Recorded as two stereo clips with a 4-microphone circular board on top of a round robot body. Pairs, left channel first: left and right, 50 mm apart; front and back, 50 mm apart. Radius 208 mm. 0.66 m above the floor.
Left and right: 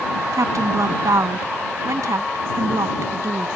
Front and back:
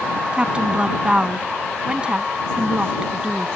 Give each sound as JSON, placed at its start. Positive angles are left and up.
{"t": 0.3, "sound": "a woman speaking", "azimuth_deg": -110}